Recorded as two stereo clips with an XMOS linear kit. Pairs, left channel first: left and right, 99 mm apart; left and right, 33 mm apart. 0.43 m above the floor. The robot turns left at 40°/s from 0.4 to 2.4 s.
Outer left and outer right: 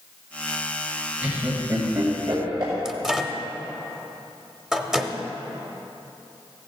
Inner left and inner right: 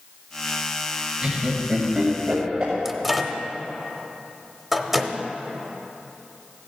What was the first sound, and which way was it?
Laughter, 15° right (ahead or behind).